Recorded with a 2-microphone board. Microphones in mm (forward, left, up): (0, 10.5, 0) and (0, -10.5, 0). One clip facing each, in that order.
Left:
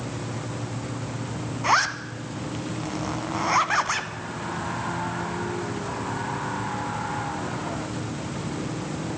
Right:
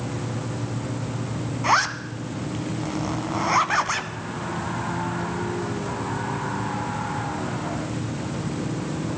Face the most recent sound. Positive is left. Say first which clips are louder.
# right 1 dB
turn(degrees=0)  # may be behind; listen again after turning